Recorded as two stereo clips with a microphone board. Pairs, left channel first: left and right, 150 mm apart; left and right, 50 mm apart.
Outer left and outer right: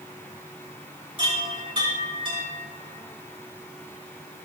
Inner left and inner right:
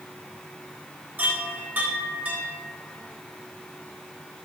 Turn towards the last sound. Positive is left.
turn(degrees=-35)  # may be behind; listen again after turning